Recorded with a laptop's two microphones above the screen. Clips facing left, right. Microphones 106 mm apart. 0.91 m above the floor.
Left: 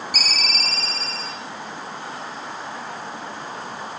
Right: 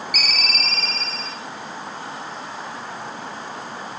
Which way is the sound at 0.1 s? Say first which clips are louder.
Even; 35° left (ahead or behind).